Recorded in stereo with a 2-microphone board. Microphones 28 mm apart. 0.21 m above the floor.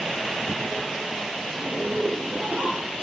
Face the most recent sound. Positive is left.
turn(degrees=-60)  # may be behind; listen again after turning